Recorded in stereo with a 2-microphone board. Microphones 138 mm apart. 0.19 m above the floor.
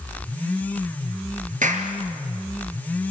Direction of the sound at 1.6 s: 65° right (ahead or behind).